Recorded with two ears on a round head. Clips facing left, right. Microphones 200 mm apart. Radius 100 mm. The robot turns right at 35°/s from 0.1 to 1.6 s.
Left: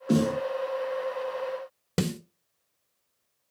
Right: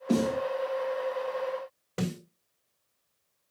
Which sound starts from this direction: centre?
A snare drum, at 0.1 s.